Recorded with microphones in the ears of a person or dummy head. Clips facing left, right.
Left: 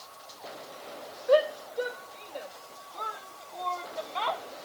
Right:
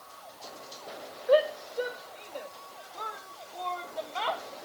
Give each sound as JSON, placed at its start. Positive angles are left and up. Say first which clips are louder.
{"t": 1.3, "sound": "a shout", "louder": "even", "side_deg": 0}